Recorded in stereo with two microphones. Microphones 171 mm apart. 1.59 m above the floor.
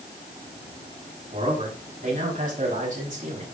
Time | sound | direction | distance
1.3 | a man speaking | 50° right (ahead or behind) | 4.5 m